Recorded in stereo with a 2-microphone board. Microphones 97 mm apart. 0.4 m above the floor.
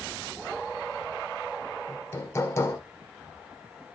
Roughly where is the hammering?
Left.